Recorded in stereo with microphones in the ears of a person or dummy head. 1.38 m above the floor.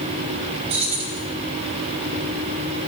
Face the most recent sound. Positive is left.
turn(degrees=-35)  # may be behind; listen again after turning